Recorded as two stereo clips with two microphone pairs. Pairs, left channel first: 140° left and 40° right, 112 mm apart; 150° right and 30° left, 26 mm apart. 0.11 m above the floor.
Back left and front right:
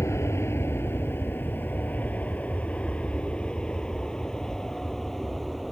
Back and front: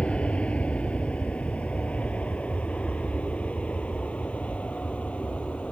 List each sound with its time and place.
0.0 s an aircraft: 165° right; by 5.7 s 135° right